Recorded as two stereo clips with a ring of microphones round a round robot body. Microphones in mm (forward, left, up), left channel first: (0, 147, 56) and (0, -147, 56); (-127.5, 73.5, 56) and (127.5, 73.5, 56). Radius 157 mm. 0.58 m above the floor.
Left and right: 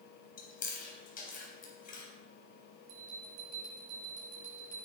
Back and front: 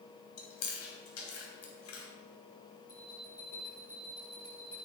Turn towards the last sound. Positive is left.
turn(degrees=-95)